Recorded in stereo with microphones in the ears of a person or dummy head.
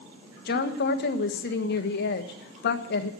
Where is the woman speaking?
55° left (ahead or behind), 1.3 m.